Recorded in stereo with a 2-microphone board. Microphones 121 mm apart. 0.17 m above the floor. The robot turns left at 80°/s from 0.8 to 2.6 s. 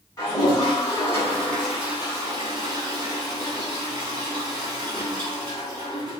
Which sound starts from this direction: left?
A toilet flushing, at 0.2 s.